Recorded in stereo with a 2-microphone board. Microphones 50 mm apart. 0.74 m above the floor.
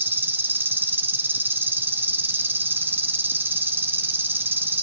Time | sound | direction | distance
0.0 | an insect | 40° right (ahead or behind) | 1.7 m